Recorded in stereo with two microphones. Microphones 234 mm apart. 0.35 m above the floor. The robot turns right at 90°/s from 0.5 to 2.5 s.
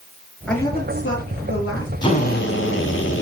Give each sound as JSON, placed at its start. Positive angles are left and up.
{"t": 0.5, "sound": "a woman speaking", "azimuth_deg": 5, "distance_m": 5.5}
{"t": 2.0, "sound": "a drill", "azimuth_deg": 20, "distance_m": 3.5}